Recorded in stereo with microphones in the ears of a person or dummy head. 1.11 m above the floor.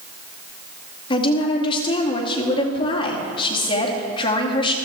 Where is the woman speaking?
30° left (ahead or behind), 2.5 m.